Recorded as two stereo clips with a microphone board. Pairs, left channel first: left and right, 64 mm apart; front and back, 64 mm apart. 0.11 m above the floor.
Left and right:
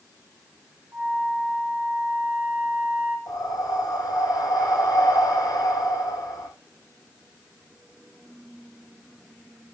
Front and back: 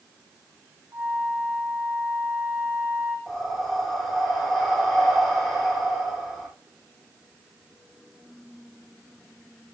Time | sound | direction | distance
0.9 | a flute | 140° right | 4.5 m
3.3 | breathing | 90° left | 5 m